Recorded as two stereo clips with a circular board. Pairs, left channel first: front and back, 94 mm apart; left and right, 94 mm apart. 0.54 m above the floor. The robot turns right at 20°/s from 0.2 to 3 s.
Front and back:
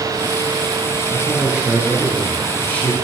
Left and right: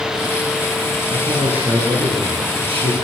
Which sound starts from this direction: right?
A man speaking, at 1.1 s.